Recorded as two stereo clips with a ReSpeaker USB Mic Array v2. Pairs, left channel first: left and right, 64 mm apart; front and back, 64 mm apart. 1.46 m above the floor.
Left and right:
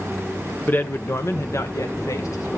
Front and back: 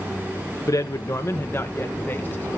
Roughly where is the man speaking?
Ahead left.